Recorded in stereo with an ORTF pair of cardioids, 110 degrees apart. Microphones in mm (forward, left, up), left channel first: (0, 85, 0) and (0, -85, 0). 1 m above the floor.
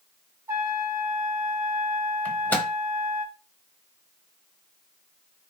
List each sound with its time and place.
0.5 s a trumpet: 15° right, 0.7 m
2.2 s a microwave: 10° left, 0.8 m